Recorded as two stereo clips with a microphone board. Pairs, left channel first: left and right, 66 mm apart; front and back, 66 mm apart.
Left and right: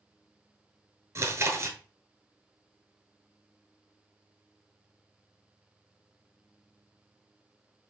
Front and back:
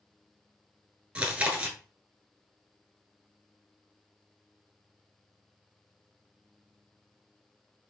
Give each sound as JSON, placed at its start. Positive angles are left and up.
{"t": 1.1, "sound": "chewing", "azimuth_deg": -110, "distance_m": 0.8}